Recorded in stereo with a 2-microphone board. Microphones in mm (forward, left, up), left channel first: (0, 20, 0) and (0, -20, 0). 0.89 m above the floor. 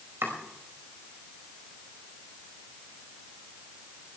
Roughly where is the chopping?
Right.